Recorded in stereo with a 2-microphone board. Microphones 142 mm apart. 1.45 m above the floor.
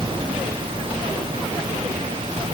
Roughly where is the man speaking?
I don't hear a man speaking.